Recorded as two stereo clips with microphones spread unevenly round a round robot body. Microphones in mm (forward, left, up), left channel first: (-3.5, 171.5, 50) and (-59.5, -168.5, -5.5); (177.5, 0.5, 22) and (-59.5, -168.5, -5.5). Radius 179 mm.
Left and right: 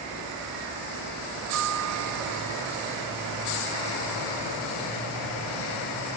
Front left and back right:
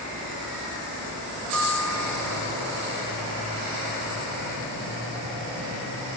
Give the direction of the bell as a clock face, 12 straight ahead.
2 o'clock.